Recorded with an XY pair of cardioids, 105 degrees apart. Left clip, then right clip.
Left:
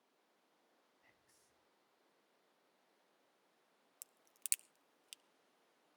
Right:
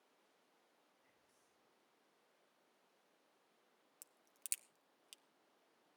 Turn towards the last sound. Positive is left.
turn(degrees=30)